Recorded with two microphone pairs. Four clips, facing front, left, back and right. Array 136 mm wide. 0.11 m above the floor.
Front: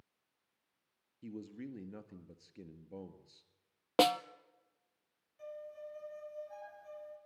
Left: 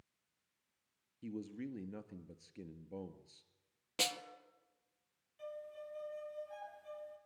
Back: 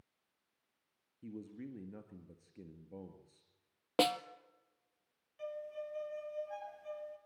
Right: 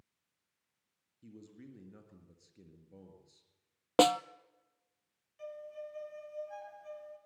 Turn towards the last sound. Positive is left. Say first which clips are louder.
# right 3 dB, back 4 dB
turn(degrees=-165)